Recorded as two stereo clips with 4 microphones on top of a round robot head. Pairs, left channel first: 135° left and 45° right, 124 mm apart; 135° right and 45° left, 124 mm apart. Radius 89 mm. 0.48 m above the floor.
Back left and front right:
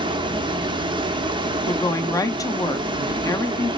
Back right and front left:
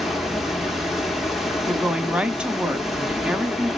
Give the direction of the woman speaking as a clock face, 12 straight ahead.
8 o'clock.